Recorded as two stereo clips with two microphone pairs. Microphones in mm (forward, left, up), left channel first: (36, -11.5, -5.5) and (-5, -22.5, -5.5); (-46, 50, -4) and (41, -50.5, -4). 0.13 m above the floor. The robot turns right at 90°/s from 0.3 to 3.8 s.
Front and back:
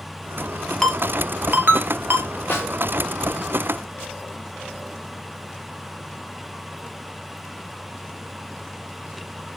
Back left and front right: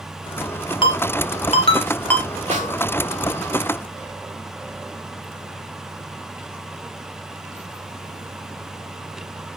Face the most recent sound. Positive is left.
turn(degrees=100)